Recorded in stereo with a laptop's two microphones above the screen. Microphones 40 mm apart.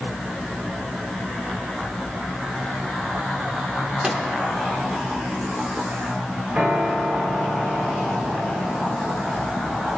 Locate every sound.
4.0 s a microwave: 15° right (ahead or behind), 2 m
6.5 s a piano: 50° right (ahead or behind), 3 m